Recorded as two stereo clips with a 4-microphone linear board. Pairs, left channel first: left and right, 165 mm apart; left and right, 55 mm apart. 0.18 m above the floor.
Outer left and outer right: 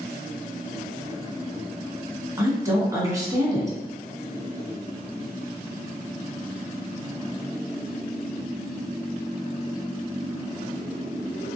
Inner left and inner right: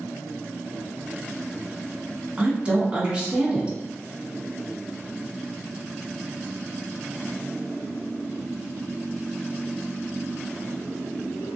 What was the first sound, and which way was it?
A woman speaking, 20° right (ahead or behind).